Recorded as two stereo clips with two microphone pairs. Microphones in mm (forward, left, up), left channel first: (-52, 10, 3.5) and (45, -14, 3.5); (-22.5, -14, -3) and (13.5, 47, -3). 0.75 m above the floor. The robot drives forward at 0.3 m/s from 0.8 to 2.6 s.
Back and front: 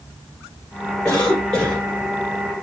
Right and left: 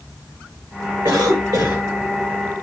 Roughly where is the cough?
Left.